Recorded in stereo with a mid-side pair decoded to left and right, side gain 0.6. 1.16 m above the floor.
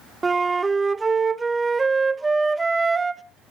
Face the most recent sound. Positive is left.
turn(degrees=-25)